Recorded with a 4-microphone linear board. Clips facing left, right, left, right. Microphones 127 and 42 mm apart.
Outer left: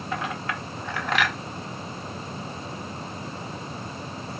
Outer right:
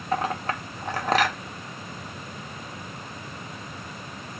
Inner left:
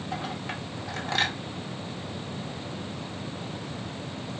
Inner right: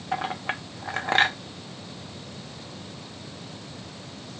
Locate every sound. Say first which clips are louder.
0.1 s a clink: outer right 5 dB, inner right 7 dB; 45° right (ahead or behind), 0.6 m